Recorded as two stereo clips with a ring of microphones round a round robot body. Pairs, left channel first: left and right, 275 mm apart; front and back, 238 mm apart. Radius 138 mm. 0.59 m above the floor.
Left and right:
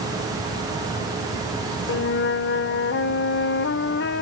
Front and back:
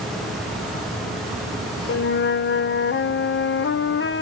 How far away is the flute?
About 0.9 m.